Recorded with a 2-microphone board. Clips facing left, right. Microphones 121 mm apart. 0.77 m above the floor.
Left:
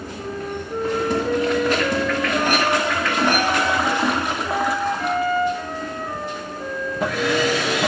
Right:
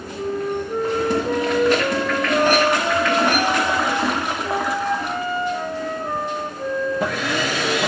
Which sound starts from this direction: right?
A flute, at 0.1 s.